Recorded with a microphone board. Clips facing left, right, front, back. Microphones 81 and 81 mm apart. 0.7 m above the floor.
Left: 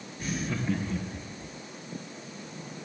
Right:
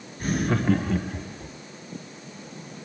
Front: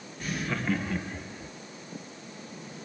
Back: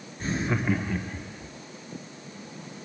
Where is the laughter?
125° right, 0.9 m; by 1.5 s 85° right, 1.8 m.